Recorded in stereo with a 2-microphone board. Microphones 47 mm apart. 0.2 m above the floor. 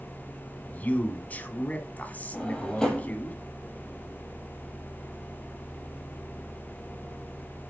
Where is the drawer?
15° left (ahead or behind), 3 m.